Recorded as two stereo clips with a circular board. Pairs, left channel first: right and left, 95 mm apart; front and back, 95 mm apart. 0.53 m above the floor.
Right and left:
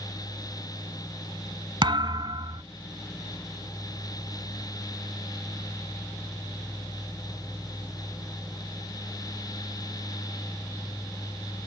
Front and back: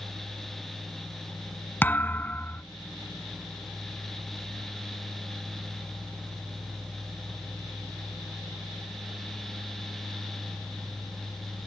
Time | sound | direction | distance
1.8 | a thud | 70° left | ?